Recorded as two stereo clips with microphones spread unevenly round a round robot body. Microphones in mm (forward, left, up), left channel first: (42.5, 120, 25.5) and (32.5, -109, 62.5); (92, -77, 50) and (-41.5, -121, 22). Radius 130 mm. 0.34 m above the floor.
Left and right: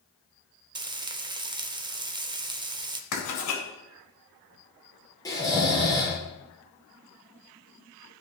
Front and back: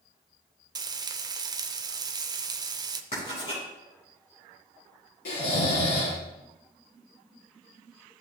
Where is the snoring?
10° left, 3 m.